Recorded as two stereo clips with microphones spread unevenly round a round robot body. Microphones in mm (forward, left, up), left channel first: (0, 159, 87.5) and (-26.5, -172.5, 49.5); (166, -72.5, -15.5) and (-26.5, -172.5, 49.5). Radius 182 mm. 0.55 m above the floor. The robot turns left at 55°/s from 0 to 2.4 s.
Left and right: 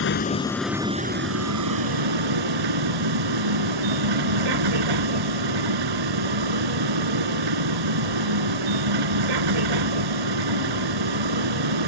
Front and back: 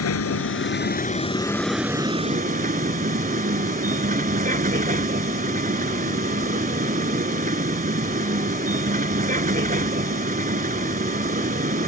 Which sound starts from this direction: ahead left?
A vehicle, at 0.0 s.